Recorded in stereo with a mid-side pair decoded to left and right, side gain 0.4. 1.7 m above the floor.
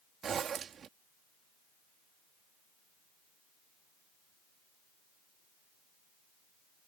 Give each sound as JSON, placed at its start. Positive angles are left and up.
{"t": 0.2, "sound": "a zipper", "azimuth_deg": -60}